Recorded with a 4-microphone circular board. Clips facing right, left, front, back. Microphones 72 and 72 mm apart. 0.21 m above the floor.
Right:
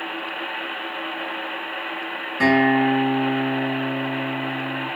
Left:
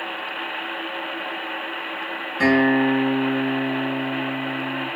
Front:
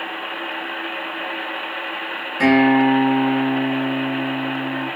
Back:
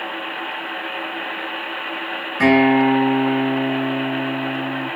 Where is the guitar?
120° right, 1.9 m.